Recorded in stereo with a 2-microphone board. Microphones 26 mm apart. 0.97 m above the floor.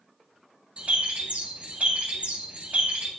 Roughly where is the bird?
Right.